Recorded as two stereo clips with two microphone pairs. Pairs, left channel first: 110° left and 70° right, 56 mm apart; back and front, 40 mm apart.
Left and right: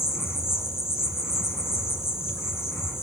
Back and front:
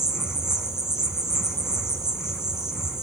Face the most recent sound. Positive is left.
turn(degrees=75)